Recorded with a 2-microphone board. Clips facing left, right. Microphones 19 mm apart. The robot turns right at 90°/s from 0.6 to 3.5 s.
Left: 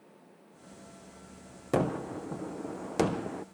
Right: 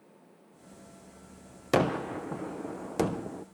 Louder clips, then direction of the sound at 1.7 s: Right 3 dB; 90° right.